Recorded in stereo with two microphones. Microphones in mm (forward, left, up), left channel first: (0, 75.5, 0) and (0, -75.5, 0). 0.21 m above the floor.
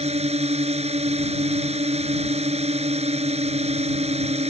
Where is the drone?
45° right (ahead or behind).